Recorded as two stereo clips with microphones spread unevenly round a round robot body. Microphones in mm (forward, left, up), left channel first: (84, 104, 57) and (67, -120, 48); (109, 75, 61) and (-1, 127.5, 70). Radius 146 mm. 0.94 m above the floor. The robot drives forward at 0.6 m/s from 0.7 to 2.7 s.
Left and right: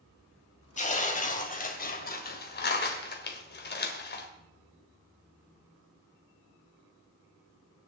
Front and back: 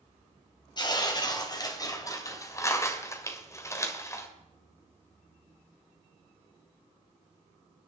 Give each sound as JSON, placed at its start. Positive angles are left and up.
{"t": 0.8, "sound": "tearing paper", "azimuth_deg": 30, "distance_m": 3.5}